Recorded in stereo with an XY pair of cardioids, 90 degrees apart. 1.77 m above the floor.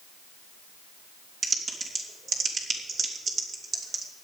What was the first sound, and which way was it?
Typing on a keyboard, 55° right.